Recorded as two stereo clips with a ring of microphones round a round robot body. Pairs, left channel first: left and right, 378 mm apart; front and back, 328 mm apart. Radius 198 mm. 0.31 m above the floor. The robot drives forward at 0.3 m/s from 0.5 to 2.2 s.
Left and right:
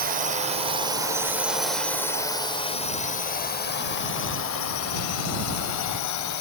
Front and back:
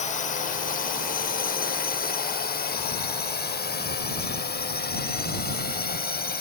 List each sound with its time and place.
0.0 s a drone: 45° right; by 6.4 s 60° left